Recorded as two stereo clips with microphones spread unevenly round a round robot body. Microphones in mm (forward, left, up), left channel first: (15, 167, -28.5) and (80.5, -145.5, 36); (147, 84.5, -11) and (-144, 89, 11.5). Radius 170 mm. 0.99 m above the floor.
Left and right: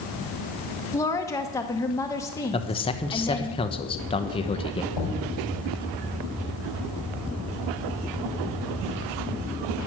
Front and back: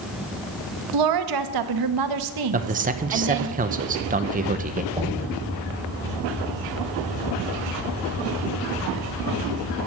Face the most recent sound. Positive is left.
turn(degrees=105)